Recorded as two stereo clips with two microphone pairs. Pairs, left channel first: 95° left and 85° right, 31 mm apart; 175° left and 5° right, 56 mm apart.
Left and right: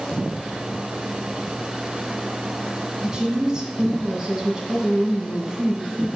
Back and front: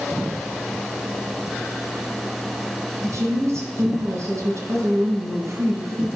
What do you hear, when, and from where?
3.0 s a woman speaking: 20° right, 2 m